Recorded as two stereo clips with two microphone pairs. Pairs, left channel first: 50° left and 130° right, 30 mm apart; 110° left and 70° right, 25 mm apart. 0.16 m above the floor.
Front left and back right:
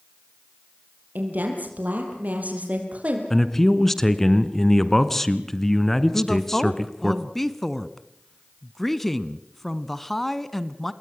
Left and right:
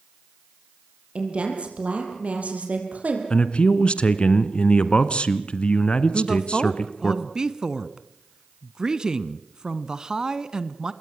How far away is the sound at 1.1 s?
About 5.5 m.